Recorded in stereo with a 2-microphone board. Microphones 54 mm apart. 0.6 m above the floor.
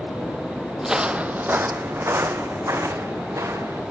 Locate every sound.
0.8 s footsteps: 10° right (ahead or behind), 1.0 m; by 3.8 s 75° right (ahead or behind), 3.5 m